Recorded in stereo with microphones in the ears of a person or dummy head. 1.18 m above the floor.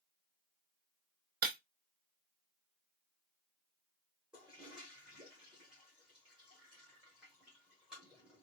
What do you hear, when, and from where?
1.4 s breaking glass: 60° right (ahead or behind), 0.8 m
4.3 s a toilet flushing: 5° right (ahead or behind), 1.2 m